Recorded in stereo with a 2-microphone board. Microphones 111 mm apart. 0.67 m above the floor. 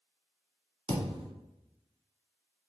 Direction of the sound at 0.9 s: 60° right (ahead or behind).